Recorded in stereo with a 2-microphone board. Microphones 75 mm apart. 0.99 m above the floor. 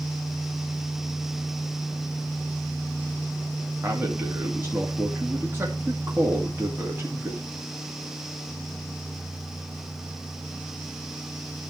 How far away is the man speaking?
About 2.5 m.